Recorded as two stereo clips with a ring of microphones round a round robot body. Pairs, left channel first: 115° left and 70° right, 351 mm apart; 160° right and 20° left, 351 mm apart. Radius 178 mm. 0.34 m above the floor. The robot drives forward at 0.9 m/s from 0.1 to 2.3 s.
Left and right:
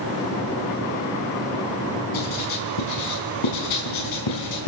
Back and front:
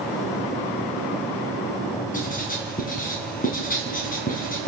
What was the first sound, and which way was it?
Writing, 135° left.